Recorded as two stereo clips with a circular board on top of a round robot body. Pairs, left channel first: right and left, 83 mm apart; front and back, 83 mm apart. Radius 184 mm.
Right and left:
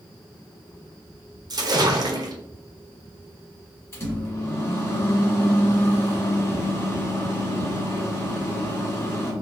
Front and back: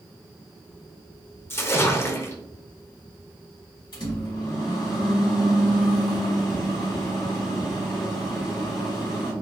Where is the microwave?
30° right, 1.9 m.